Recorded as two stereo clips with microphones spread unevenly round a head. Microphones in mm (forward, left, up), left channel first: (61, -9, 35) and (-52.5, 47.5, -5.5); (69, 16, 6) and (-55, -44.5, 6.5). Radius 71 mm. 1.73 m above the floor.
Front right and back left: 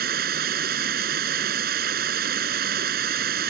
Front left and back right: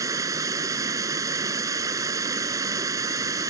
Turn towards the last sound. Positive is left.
turn(degrees=140)